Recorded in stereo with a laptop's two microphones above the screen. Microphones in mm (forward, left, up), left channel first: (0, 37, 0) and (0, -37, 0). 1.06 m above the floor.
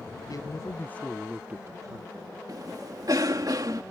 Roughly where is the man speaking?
Left.